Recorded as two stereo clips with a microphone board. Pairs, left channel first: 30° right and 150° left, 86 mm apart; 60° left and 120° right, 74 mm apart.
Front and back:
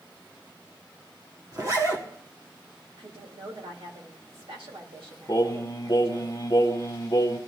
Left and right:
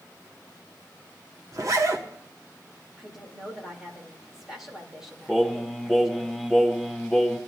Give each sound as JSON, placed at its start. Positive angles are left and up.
{"t": 1.5, "sound": "a zipper", "azimuth_deg": -165, "distance_m": 1.7}
{"t": 3.0, "sound": "a woman speaking", "azimuth_deg": 155, "distance_m": 3.0}
{"t": 5.3, "sound": "singing", "azimuth_deg": -25, "distance_m": 1.4}